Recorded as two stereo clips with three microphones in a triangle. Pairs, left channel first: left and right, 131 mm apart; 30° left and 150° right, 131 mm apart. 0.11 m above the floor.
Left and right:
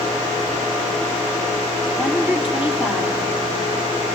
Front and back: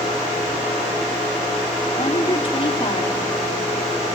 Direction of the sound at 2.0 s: 15° right.